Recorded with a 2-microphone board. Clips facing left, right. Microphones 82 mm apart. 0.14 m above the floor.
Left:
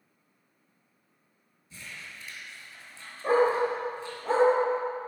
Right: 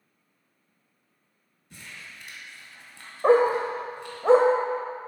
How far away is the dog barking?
About 1.7 m.